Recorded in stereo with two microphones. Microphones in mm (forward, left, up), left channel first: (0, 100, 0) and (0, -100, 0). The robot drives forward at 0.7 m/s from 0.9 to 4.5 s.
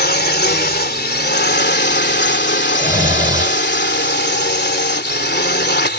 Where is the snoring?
15° right (ahead or behind); by 6.0 s 35° right (ahead or behind).